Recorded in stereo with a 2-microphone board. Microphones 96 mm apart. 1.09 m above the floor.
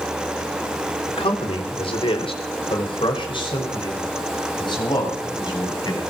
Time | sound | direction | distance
1.1 | a man speaking | 85° left | 3 m